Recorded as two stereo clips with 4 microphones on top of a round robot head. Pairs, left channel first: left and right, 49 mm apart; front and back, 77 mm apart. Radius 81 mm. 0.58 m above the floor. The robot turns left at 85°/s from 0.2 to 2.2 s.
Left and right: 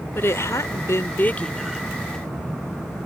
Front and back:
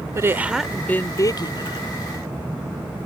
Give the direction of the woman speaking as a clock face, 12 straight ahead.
8 o'clock.